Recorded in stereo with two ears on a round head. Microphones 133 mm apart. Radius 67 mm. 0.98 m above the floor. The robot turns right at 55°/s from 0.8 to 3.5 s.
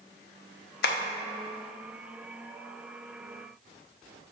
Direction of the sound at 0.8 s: 65° left (ahead or behind).